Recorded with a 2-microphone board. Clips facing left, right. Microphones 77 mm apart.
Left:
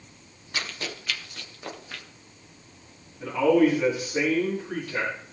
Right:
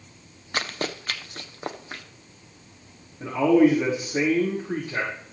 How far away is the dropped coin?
No dropped coin in this recording.